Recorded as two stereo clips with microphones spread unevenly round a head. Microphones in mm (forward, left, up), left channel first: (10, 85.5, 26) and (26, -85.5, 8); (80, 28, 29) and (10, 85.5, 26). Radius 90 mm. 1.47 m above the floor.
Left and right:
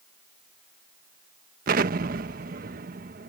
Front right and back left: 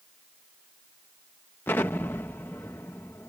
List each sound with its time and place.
1.7 s an explosion: 105° right